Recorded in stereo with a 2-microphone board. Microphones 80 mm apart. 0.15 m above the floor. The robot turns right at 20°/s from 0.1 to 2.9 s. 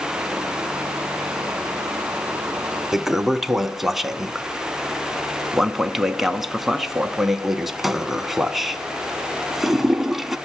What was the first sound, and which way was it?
A toilet flushing, 5° right (ahead or behind).